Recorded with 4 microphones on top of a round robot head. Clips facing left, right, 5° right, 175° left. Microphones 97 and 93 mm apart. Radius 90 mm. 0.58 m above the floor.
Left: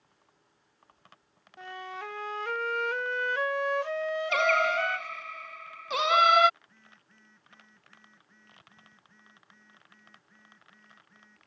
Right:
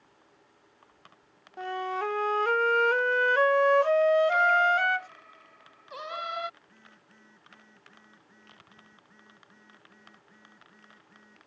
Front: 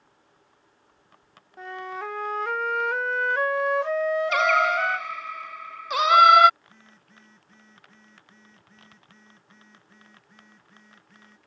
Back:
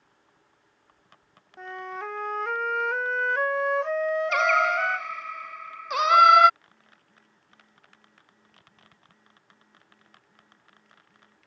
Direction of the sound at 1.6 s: 90° right.